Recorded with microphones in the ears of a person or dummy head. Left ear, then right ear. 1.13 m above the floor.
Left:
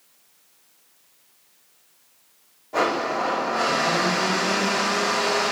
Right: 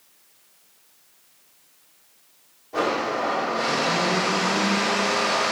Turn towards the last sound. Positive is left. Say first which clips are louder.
# left 1 dB
turn(degrees=20)  # may be behind; listen again after turning